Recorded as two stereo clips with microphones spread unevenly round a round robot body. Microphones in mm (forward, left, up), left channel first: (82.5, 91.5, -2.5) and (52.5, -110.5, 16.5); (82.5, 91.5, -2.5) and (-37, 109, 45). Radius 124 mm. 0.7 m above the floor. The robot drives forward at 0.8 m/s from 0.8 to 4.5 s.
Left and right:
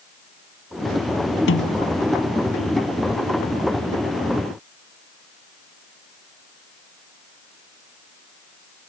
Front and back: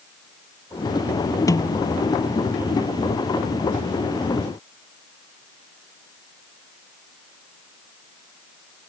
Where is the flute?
I don't hear a flute.